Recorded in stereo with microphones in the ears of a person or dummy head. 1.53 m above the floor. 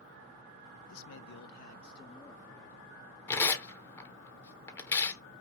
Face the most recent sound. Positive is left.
turn(degrees=10)  # may be behind; listen again after turning